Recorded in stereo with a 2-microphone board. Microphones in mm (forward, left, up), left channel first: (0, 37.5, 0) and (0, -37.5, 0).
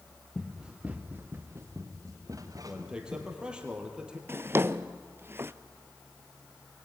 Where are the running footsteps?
Centre (ahead or behind), 1.9 m; by 3.5 s 60° right (ahead or behind), 4.5 m.